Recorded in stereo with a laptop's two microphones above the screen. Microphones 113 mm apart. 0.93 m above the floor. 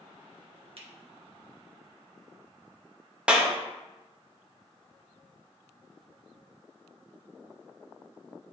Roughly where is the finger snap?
Right.